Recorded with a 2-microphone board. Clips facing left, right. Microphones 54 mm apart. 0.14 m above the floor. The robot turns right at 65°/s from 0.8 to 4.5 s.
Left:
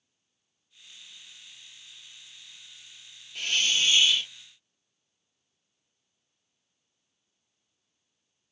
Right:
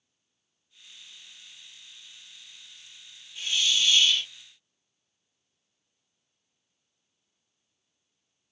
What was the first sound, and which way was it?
A hiss, 120° left.